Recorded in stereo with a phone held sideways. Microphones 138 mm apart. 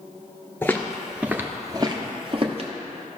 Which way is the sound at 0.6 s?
15° left (ahead or behind).